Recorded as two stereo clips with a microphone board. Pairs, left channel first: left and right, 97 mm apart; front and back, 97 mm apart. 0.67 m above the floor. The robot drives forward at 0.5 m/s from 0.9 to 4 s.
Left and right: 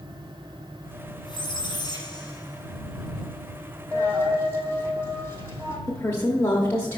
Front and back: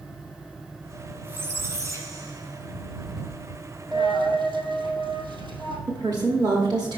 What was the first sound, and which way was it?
A squeak, 115° left.